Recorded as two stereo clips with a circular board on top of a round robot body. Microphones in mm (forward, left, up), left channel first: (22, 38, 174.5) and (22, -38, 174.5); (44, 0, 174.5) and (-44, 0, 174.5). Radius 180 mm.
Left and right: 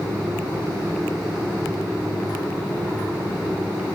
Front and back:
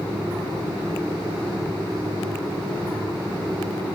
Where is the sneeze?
No sneeze in this recording.